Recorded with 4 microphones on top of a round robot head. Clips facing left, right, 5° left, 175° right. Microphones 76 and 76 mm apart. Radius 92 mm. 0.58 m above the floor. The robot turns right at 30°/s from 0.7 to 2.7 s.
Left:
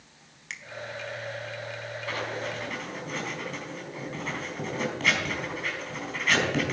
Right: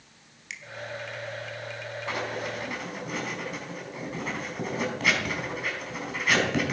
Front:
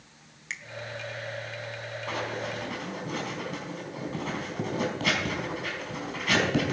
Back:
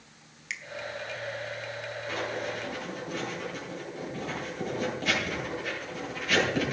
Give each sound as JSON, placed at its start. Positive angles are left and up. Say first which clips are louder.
{"t": 0.5, "sound": "a finger snap", "louder": "left 1 dB, even", "azimuth_deg": 55, "distance_m": 1.5}
{"t": 2.1, "sound": "writing", "louder": "right 1 dB, front 1 dB", "azimuth_deg": -25, "distance_m": 4.5}